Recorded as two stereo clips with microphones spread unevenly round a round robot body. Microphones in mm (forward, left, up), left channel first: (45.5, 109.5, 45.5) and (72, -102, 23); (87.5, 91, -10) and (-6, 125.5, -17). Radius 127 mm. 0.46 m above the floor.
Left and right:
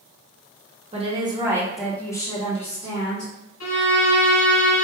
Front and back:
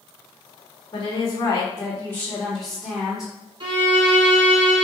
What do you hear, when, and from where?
0.9 s a woman speaking: 50° right, 1.1 m; by 3.3 s 80° left, 1.2 m
3.6 s a violin: 125° left, 1.5 m